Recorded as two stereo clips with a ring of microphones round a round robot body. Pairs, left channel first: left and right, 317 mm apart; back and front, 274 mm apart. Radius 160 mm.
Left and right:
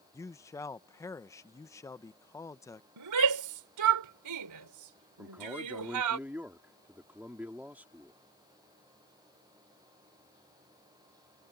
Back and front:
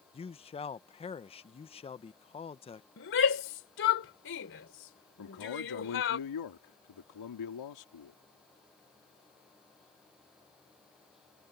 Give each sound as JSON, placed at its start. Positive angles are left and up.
{"t": 0.1, "sound": "a man speaking", "azimuth_deg": 155}
{"t": 3.0, "sound": "a shout", "azimuth_deg": -125}
{"t": 5.2, "sound": "a man speaking", "azimuth_deg": -175}